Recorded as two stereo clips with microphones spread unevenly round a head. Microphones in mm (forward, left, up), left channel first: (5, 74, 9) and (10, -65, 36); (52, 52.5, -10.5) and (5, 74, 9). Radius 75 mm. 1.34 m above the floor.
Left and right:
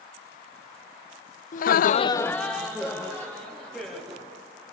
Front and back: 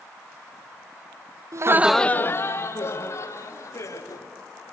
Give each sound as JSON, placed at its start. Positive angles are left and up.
{"t": 1.5, "sound": "laughter", "azimuth_deg": 125, "distance_m": 0.7}